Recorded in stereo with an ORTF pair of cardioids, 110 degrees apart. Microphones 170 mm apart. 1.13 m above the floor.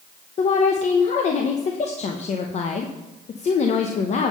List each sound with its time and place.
0.4 s a woman speaking: 45° left, 0.9 m